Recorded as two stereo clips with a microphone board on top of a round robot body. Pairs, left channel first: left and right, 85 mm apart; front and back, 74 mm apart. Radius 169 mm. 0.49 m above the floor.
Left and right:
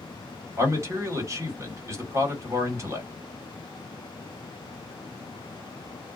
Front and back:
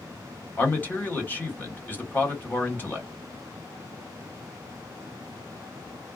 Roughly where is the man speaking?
Ahead right.